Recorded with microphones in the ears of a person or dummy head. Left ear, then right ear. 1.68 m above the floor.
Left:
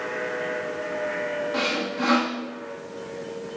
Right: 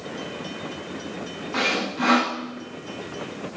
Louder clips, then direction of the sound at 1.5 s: Right 6 dB; 15° right (ahead or behind).